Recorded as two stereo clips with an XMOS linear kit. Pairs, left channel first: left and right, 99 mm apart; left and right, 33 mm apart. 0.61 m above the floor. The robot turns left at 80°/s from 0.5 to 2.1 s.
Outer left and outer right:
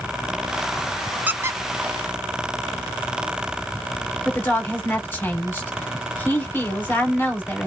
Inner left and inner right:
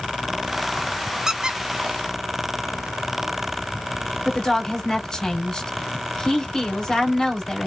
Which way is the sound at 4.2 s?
20° left (ahead or behind).